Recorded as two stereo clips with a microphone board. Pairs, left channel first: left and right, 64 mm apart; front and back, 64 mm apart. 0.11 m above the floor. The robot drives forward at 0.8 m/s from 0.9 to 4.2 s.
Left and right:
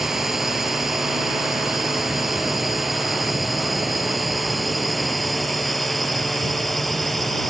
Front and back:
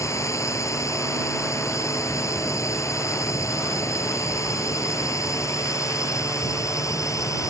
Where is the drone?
5° right; by 7.5 s 5° left.